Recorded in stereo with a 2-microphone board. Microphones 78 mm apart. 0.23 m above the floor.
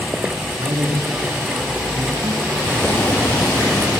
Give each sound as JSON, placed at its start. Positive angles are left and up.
{"t": 0.6, "sound": "a man speaking", "side_deg": -55, "distance_m": 2.5}
{"t": 2.6, "sound": "boiling", "side_deg": 20, "distance_m": 6.5}